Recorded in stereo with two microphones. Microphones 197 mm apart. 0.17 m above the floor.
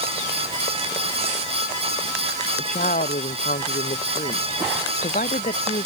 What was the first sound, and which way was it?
A woman speaking, 45° left (ahead or behind).